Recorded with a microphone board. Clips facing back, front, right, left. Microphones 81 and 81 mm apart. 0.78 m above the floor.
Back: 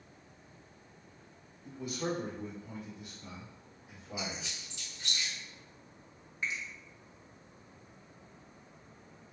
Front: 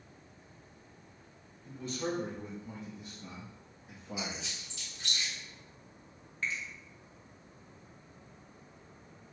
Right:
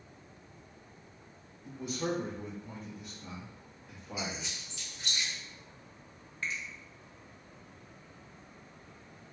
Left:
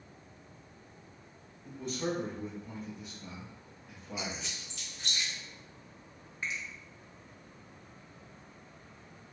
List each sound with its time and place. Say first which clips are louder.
1.6 s a man speaking: even, even; 165° right, 0.9 m; by 4.5 s 5° left, 1.6 m
4.2 s a squeak: even, right 1 dB; 5° right, 1.3 m
6.4 s a finger snap: even, even; 135° left, 0.7 m